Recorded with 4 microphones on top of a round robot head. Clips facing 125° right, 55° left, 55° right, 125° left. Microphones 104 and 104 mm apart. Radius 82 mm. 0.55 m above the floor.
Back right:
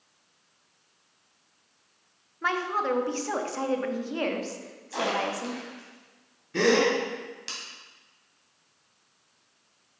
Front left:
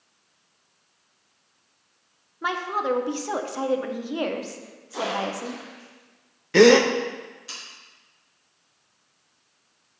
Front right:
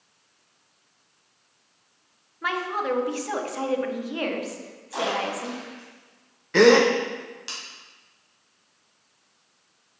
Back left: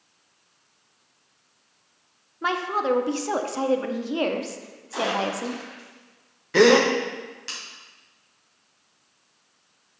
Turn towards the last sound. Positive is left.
turn(degrees=40)